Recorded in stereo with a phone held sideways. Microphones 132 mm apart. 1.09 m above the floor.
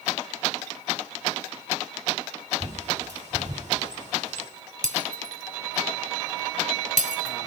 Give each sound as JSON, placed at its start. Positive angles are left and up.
{"t": 2.6, "sound": "a bird", "side_deg": -60, "distance_m": 3.0}
{"t": 4.8, "sound": "breaking glass", "side_deg": -65, "distance_m": 1.5}